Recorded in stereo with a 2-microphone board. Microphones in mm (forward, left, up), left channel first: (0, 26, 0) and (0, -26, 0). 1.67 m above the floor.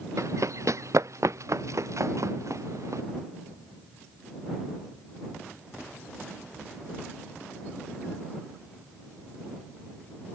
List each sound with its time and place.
0.2 s running footsteps: 70° right (ahead or behind)